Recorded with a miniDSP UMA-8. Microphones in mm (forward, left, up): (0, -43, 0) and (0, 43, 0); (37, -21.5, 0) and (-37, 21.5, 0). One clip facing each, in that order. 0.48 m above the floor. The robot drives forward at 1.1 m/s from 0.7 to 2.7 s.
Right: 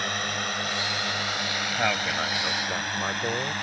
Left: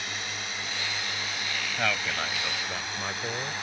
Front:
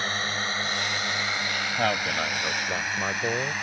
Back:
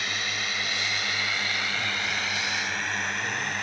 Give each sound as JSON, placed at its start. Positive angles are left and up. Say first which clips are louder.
{"t": 0.0, "sound": "a drone", "louder": "right 7 dB, front 3 dB", "azimuth_deg": -75}
{"t": 1.8, "sound": "a man speaking", "louder": "right 3 dB, front 5 dB", "azimuth_deg": -15}